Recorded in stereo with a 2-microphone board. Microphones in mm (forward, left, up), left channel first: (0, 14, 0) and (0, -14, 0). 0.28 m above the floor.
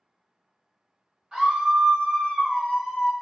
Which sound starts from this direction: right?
A scream, at 1.3 s.